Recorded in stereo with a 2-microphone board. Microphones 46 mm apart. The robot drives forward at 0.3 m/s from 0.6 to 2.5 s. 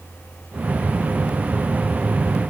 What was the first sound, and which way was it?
Only background noise.